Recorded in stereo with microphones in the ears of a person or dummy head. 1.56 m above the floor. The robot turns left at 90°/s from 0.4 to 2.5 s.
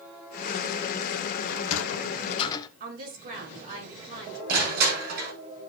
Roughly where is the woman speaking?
Right.